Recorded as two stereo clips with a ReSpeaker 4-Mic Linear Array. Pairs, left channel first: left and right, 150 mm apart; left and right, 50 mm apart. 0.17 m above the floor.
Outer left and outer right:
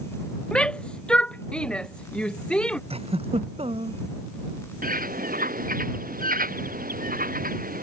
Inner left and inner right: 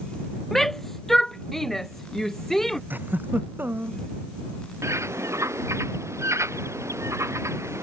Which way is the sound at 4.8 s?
70° right (ahead or behind).